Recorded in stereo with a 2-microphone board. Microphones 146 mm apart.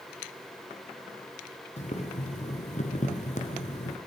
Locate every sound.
1.8 s boiling: 50° left (ahead or behind), 3.5 m